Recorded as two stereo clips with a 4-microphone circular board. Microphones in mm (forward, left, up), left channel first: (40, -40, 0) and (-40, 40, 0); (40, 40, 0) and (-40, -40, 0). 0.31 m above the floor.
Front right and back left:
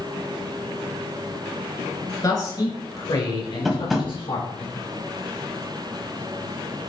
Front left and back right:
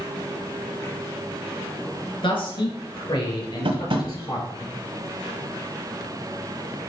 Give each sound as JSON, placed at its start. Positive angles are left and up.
{"t": 2.2, "sound": "a man speaking", "azimuth_deg": 5, "distance_m": 4.0}
{"t": 3.6, "sound": "tapping", "azimuth_deg": -140, "distance_m": 1.5}